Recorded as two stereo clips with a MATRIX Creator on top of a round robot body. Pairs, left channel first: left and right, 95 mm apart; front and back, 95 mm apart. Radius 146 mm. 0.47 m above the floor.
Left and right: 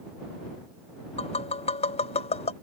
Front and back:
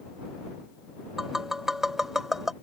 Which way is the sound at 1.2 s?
95° left.